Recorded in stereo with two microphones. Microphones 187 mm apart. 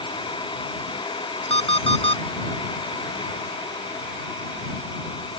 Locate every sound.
1.5 s an alarm clock: 85° right